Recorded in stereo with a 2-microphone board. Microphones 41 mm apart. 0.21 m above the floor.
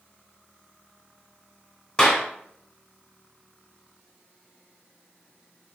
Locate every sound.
2.0 s a clap: 20° left (ahead or behind), 2.0 m